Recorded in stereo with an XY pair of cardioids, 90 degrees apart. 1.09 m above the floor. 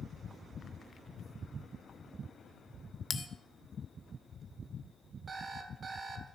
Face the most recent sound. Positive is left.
turn(degrees=-50)